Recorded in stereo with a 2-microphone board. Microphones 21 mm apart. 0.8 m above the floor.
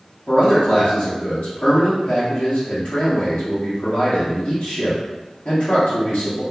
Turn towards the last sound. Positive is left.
turn(degrees=70)  # may be behind; listen again after turning